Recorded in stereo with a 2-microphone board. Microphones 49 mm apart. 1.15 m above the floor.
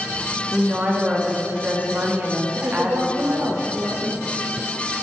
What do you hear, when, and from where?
0.5 s a woman speaking: 30° right (ahead or behind), 1.7 m
2.5 s a woman speaking: 55° right (ahead or behind), 0.9 m